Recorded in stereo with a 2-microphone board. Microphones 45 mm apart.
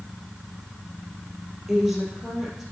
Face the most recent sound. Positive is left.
turn(degrees=-5)  # may be behind; listen again after turning